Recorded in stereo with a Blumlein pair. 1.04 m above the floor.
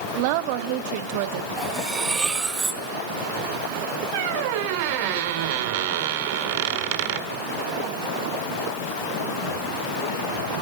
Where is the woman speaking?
45° right, 1.3 m.